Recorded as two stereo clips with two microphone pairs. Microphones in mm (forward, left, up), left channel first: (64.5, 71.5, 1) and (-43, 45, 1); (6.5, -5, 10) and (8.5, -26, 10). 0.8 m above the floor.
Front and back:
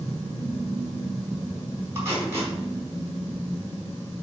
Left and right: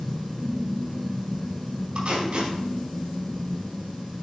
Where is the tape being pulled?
100° right, 4 m.